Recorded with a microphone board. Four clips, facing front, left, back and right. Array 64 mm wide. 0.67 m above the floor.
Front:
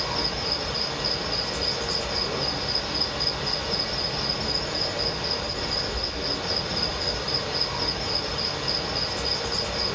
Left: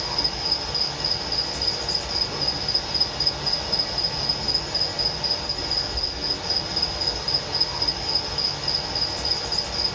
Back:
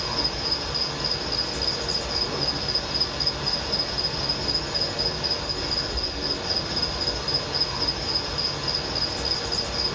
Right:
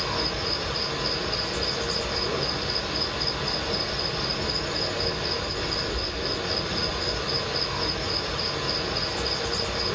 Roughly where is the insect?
Ahead right.